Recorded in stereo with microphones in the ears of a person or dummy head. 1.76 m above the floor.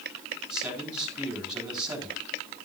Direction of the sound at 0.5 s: 5° right (ahead or behind).